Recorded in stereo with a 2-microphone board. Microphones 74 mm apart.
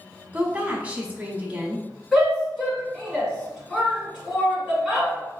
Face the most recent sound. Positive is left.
turn(degrees=5)  # may be behind; listen again after turning